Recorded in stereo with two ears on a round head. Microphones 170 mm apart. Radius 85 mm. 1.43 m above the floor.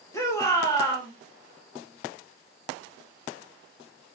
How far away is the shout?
About 1.3 m.